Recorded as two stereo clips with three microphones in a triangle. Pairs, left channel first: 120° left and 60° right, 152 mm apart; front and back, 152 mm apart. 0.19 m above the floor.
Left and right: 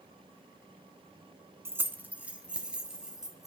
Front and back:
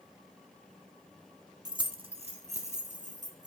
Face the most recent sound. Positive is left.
turn(degrees=-145)